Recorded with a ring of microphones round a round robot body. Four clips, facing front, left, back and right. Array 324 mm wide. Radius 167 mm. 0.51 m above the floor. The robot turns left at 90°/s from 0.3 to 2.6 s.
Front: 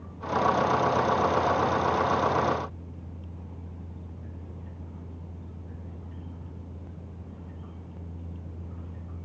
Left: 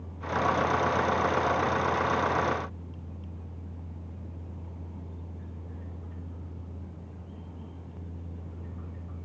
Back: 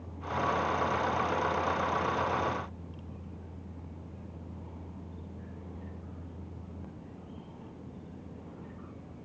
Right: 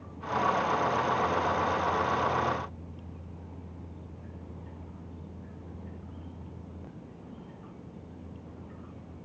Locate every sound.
Only background noise.